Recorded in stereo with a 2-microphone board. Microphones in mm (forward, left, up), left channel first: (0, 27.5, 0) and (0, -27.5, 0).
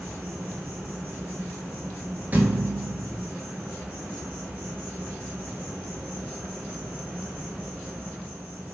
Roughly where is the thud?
Right.